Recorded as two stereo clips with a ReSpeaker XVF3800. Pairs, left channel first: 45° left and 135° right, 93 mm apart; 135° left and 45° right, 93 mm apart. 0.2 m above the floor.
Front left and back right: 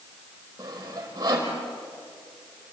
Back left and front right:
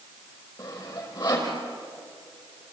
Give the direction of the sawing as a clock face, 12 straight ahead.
6 o'clock.